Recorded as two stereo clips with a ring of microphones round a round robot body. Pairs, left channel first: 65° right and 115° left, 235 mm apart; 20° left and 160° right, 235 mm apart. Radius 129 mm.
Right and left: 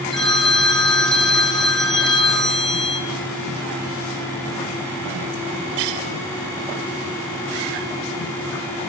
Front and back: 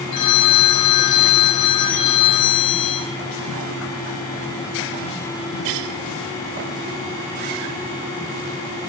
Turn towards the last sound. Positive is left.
turn(degrees=20)